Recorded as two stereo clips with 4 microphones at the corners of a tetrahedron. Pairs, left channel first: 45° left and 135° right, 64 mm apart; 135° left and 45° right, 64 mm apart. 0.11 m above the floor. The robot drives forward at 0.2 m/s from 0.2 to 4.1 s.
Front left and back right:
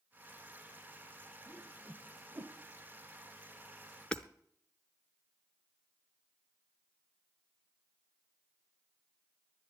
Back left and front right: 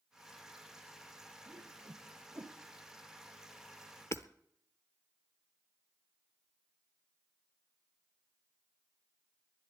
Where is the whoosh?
70° right, 1.0 m; by 2.6 s 80° right, 1.0 m.